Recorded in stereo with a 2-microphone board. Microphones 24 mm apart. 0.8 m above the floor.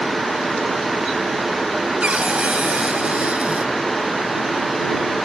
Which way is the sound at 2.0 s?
65° right (ahead or behind).